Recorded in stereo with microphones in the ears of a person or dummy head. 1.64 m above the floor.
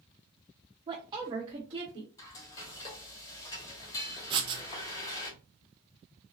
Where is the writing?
30° right (ahead or behind), 0.7 m.